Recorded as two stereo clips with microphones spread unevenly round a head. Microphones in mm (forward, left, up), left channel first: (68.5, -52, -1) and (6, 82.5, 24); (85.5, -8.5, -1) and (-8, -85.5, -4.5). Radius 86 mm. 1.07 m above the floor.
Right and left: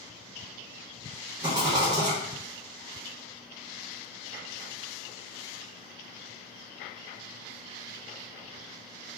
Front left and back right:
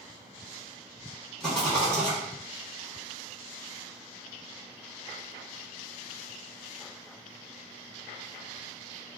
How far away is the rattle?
About 0.8 m.